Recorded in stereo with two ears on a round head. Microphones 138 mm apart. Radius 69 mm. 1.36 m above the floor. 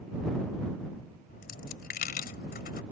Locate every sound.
1.3 s a dropped coin: 65° left (ahead or behind)